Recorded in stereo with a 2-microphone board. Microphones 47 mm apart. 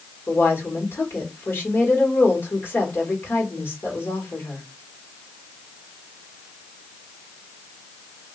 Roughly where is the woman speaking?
Left.